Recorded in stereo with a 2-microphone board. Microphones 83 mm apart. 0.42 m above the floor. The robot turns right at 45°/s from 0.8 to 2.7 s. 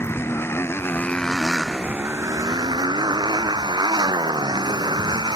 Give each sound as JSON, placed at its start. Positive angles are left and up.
{"t": 0.0, "sound": "a motorcycle", "azimuth_deg": 150}